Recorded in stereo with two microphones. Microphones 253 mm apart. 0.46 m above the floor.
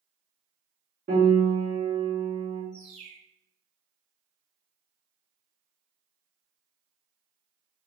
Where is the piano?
40° right (ahead or behind), 1.8 m.